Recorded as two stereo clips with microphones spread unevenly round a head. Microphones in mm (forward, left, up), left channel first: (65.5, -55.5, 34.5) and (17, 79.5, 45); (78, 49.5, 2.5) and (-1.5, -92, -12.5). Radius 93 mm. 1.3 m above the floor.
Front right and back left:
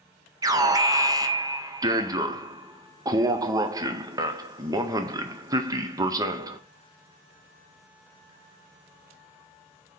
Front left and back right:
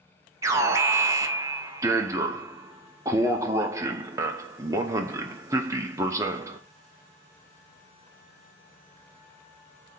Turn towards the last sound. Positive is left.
turn(degrees=175)